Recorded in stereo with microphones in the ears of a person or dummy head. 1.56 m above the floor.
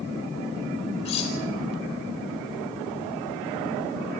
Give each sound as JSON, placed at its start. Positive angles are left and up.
{"t": 1.1, "sound": "cutlery clinking", "side_deg": 35, "distance_m": 3.5}